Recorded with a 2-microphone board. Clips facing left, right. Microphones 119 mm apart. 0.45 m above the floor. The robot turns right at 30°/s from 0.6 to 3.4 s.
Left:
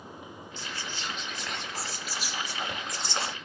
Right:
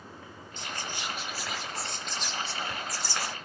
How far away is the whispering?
About 0.9 m.